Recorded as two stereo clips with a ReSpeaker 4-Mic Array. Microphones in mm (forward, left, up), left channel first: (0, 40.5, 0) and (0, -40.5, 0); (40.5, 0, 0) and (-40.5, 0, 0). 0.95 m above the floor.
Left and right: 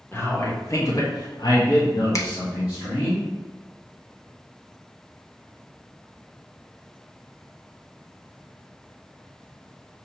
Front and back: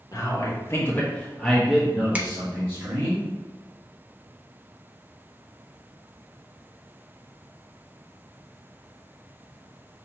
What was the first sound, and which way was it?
A man speaking, 30° left.